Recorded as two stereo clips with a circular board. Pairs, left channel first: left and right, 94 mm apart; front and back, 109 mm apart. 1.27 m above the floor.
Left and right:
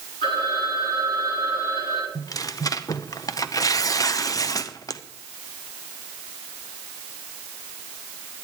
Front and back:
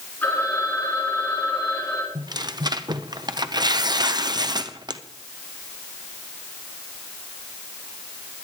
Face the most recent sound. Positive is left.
turn(degrees=135)